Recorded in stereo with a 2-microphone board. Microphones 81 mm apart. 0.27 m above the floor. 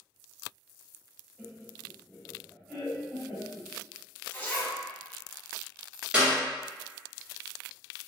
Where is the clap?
10° right (ahead or behind), 1.2 m.